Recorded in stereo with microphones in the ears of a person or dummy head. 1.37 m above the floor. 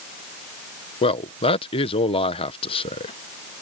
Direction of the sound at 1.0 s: 30° left (ahead or behind).